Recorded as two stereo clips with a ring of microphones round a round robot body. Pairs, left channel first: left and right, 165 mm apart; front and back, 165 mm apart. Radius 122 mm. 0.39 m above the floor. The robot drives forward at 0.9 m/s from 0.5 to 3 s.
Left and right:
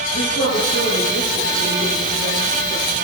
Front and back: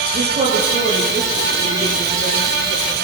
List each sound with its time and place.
0.1 s a woman speaking: 130° left, 8.5 m; by 2.9 s 140° left, 10 m